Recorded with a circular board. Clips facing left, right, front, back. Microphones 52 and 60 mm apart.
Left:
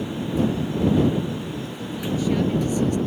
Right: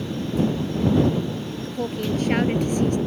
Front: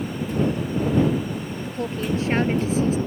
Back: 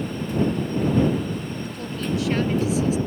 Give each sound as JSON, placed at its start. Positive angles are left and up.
{"t": 1.6, "sound": "a woman speaking", "azimuth_deg": -60}